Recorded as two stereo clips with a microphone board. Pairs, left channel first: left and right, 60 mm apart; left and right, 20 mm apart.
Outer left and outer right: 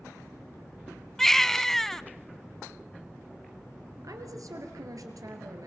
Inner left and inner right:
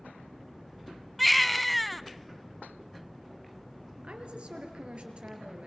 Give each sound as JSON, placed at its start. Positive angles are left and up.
{"t": 1.2, "sound": "a baby crying", "side_deg": 5, "distance_m": 0.5}
{"t": 4.0, "sound": "a woman speaking", "side_deg": -70, "distance_m": 4.0}